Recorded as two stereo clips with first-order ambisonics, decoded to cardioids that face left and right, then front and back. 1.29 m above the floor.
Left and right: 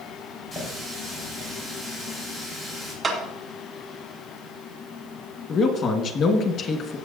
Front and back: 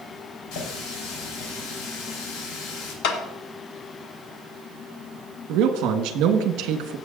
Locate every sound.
0.5 s a running tap: 20° left, 4 m
3.0 s a clap: 10° right, 1.8 m
5.5 s a man speaking: 150° left, 1.5 m